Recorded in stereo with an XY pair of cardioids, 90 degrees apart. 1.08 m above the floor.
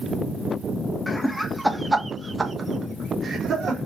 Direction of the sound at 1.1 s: 20° left.